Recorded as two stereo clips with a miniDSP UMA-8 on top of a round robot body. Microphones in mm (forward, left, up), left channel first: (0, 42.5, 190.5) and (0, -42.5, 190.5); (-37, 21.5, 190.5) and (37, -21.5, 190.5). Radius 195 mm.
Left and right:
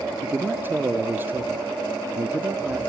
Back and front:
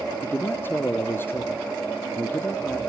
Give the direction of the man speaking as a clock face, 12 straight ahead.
5 o'clock.